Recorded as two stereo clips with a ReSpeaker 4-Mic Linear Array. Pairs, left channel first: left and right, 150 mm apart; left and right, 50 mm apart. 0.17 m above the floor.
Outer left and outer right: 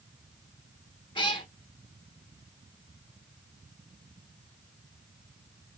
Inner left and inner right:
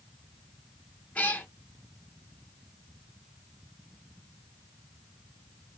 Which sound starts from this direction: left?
A cat meowing, at 1.1 s.